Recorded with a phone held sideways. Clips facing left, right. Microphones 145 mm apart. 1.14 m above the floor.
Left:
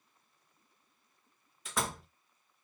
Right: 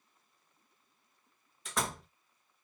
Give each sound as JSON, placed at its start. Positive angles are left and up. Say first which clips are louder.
{"t": 1.6, "sound": "a door slam", "louder": "even", "side_deg": 0, "distance_m": 0.9}